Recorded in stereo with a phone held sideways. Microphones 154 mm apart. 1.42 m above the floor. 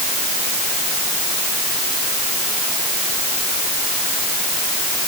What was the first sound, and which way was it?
Only background noise.